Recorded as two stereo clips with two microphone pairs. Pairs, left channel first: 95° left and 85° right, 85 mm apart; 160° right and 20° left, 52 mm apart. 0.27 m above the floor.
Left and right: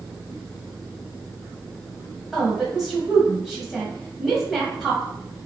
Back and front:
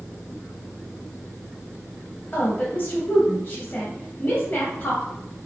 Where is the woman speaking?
170° right, 1.1 m.